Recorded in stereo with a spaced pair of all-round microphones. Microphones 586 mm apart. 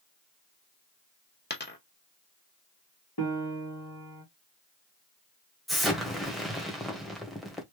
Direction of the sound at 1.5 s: 20° left (ahead or behind).